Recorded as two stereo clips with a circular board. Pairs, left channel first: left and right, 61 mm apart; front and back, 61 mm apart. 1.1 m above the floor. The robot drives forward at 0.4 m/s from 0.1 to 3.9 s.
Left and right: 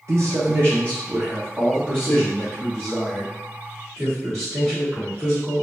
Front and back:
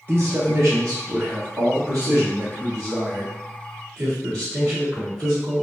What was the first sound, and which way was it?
A man speaking, 125° right.